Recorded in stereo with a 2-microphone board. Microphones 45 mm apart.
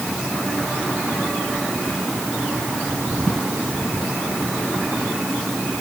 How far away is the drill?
No drill in this recording.